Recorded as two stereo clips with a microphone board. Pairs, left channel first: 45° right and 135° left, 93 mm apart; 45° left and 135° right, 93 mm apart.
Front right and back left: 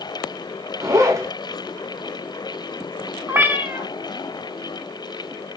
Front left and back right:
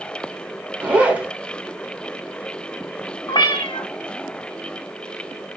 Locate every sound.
0.8 s a zipper: 155° left, 0.7 m
3.3 s a cat meowing: 70° left, 0.6 m